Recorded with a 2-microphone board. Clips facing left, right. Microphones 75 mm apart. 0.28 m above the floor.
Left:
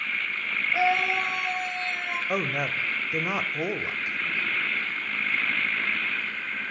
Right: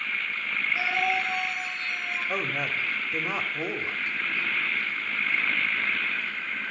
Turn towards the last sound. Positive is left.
turn(degrees=15)  # may be behind; listen again after turning